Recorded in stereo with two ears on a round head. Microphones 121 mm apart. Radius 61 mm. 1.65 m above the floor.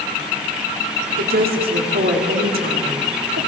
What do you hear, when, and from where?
1.2 s a woman speaking: 85° right, 4.5 m